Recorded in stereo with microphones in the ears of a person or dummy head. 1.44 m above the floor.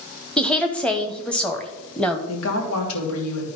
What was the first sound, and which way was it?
A woman speaking, 5° left (ahead or behind).